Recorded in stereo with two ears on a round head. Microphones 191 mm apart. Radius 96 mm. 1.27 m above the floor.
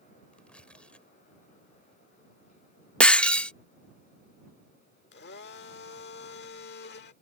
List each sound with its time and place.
0.3 s tearing paper: 5° left (ahead or behind)
3.0 s breaking glass: 5° left (ahead or behind)
5.1 s a blender: 50° left (ahead or behind)